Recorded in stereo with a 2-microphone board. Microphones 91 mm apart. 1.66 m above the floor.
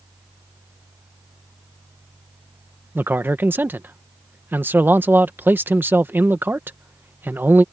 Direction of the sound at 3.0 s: 20° right (ahead or behind).